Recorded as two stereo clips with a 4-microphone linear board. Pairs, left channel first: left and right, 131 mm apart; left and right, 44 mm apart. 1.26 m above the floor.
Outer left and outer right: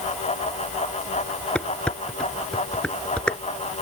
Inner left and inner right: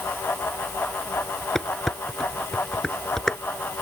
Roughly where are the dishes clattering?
Centre.